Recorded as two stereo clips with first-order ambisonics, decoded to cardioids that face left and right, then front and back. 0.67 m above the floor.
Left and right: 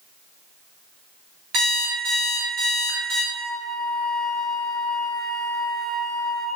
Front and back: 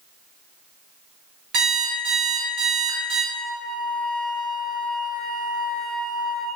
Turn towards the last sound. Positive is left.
turn(degrees=145)